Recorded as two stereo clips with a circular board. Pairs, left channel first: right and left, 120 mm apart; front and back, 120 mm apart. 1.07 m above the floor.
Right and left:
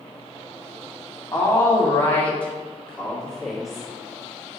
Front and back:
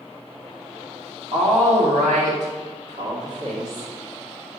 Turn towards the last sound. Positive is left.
turn(degrees=175)